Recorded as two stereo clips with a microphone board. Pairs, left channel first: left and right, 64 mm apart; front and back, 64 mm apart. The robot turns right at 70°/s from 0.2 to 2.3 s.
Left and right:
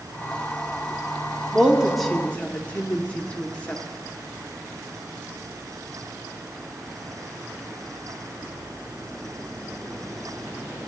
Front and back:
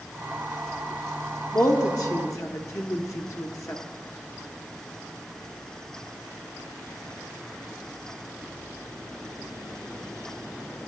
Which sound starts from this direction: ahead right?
A woman speaking, at 1.5 s.